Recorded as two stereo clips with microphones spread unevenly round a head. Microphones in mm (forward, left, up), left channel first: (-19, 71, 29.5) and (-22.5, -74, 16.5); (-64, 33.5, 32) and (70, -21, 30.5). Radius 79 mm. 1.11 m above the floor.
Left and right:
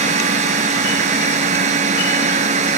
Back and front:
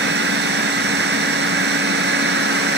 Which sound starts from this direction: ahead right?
A machine running, at 0.0 s.